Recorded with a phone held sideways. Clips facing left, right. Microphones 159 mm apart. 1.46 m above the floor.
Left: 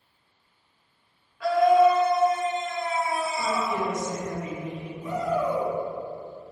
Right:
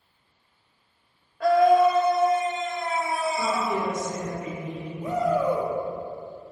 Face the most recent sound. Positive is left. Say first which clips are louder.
# right 3 dB
turn(degrees=-75)  # may be behind; listen again after turning